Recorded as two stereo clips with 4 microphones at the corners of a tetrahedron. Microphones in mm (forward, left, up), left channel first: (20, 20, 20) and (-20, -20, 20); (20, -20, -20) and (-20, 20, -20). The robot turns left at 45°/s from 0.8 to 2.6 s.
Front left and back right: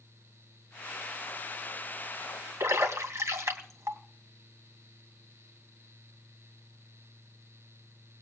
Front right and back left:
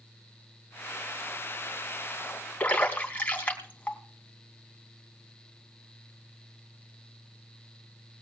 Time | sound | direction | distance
2.6 | a splash | 105° right | 2.5 m